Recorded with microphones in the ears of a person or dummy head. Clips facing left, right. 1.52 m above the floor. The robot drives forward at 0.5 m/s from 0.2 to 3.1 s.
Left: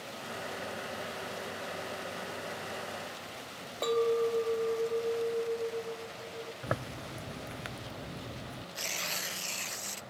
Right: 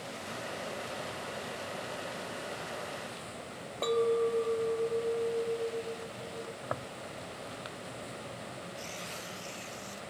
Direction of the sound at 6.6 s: 30° left (ahead or behind).